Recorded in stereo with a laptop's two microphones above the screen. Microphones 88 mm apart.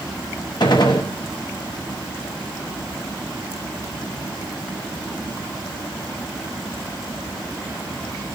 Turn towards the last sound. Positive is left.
turn(degrees=60)  # may be behind; listen again after turning